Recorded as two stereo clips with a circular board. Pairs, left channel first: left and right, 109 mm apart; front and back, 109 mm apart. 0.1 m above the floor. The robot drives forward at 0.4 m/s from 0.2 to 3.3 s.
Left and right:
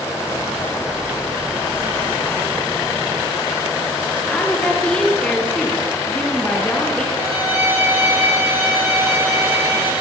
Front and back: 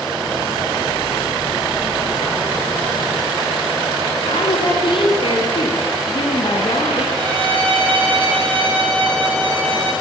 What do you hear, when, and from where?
4.3 s a woman speaking: 10° left, 2.5 m
7.2 s a violin: 75° right, 6.5 m